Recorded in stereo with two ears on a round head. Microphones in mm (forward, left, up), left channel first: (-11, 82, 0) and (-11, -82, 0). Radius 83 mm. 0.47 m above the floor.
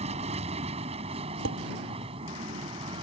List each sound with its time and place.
0.0 s an aircraft: 35° right (ahead or behind); by 3.0 s 30° right (ahead or behind)
1.4 s dishes clattering: 75° right (ahead or behind)